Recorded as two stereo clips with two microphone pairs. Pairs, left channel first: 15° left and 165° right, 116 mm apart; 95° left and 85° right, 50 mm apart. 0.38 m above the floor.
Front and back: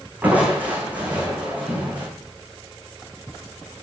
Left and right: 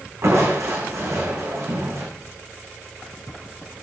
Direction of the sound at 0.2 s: 85° right.